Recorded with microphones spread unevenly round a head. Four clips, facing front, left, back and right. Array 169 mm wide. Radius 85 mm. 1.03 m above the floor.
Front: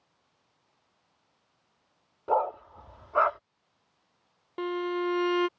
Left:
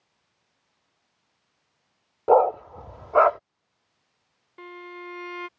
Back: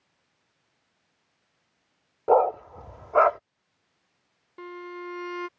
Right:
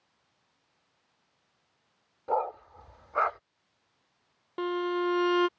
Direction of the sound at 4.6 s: 55° right.